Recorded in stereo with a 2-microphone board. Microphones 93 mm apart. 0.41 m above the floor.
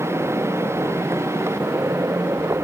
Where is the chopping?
I don't hear chopping.